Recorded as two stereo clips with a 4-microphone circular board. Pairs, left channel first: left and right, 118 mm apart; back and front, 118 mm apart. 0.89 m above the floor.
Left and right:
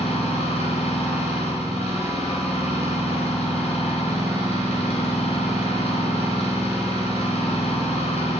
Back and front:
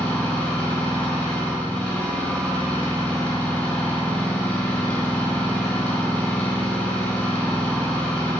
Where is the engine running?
110° left, 3 m.